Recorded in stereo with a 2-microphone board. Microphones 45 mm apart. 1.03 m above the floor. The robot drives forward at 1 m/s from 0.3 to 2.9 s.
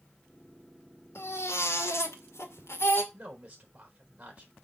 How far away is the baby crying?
About 2 m.